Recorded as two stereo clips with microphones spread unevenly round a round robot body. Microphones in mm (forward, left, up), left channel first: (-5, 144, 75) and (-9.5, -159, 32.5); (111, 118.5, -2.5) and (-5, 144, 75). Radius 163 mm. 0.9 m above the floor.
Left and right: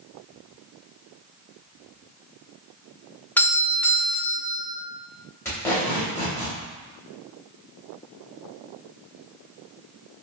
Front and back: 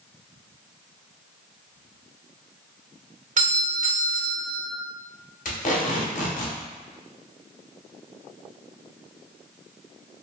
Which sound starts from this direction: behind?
A doorbell, at 3.4 s.